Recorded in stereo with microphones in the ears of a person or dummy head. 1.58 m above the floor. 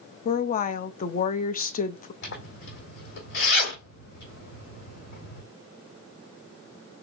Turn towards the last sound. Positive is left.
turn(degrees=60)  # may be behind; listen again after turning